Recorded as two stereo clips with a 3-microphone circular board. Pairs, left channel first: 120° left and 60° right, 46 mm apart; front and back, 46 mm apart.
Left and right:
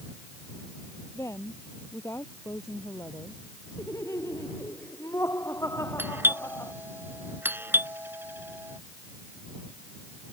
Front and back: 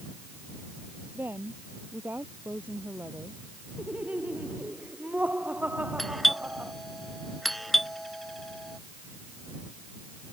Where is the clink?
No clink in this recording.